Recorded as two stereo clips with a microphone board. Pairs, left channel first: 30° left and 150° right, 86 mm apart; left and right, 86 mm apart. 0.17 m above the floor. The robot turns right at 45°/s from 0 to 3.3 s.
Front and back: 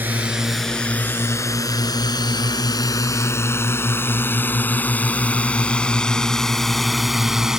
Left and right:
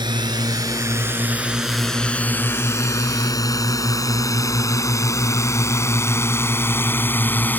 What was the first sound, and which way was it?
A drone, 85° right.